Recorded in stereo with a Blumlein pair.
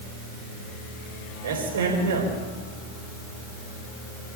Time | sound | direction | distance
1.4 | a man speaking | 60° right | 5 m